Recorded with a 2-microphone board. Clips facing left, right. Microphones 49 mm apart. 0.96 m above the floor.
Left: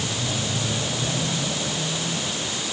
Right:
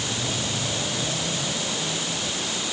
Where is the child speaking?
No child speaking in this recording.